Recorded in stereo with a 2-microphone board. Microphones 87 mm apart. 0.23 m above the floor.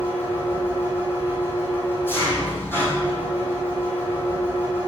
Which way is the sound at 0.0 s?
25° left (ahead or behind).